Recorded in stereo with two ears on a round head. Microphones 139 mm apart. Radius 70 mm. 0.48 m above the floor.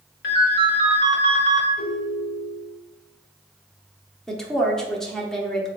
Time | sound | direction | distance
0.2 | a ringtone | 65° left (ahead or behind) | 1.0 m
1.8 | a ringtone | 70° left (ahead or behind) | 1.6 m
4.3 | a woman speaking | 5° left (ahead or behind) | 0.7 m